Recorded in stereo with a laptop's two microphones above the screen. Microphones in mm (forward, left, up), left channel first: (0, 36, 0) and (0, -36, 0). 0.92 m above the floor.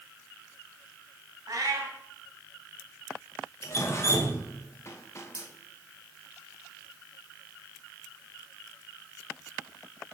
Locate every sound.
1.5 s a cat meowing: 55° right (ahead or behind), 1.2 m
3.6 s dripping: 40° left (ahead or behind), 1.0 m